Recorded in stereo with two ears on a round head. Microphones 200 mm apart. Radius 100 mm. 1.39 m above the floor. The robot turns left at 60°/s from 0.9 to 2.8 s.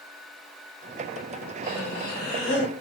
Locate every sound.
1.6 s breathing: 115° left, 1.4 m; by 2.7 s 50° left, 1.4 m